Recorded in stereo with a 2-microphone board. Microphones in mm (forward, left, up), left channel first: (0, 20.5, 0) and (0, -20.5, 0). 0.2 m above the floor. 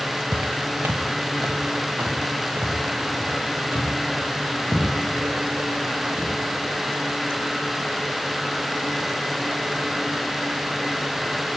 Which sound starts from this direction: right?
Footsteps, at 0.3 s.